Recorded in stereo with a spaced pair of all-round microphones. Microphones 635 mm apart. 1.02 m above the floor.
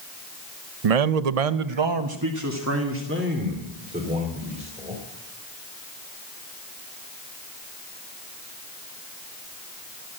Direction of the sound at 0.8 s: 60° right (ahead or behind).